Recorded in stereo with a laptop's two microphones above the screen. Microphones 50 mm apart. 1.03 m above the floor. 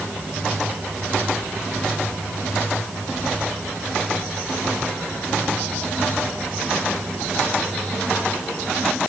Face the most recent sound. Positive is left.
No sound to turn to.